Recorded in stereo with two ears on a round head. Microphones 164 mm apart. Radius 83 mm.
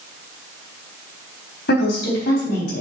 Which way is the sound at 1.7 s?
60° left (ahead or behind).